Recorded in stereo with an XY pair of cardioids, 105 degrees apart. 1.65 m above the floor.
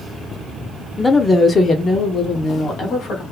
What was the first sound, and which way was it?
A woman speaking, 15° left.